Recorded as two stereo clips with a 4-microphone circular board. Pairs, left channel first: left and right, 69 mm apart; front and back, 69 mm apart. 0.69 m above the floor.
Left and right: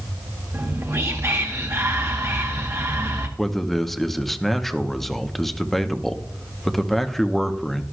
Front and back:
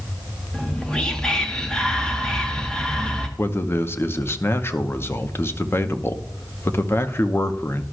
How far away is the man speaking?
About 0.8 m.